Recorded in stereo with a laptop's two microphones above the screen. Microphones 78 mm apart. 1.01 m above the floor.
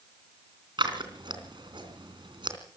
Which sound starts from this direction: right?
Scissors, at 0.8 s.